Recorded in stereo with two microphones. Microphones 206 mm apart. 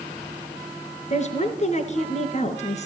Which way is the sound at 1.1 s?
35° left (ahead or behind).